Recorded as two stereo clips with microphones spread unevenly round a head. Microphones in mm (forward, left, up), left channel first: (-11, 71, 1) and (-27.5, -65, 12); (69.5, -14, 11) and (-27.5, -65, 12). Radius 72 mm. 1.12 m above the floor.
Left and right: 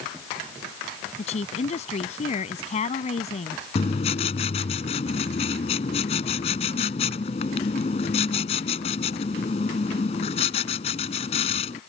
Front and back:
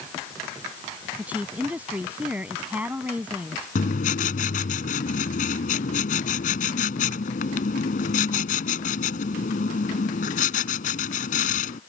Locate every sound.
1.2 s a woman speaking: 125° left
3.8 s writing: 30° left